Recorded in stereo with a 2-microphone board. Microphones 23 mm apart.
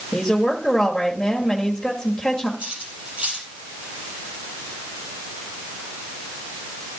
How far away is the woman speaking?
About 1.6 m.